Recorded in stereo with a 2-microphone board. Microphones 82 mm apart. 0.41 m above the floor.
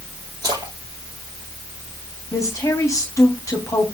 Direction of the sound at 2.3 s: 40° left (ahead or behind).